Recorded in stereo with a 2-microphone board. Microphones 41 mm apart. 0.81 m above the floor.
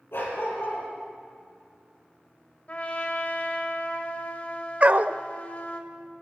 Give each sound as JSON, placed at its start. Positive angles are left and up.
{"t": 0.1, "sound": "a dog barking", "side_deg": 80, "distance_m": 7.0}
{"t": 2.7, "sound": "a trumpet", "side_deg": 40, "distance_m": 1.8}
{"t": 4.8, "sound": "a dog barking", "side_deg": -40, "distance_m": 0.6}